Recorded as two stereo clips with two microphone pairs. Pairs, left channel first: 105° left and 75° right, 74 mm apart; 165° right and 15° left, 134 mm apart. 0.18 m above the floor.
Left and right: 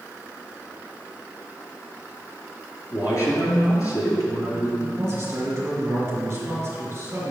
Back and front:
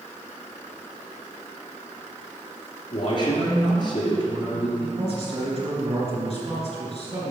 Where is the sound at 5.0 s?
20° right, 3 m.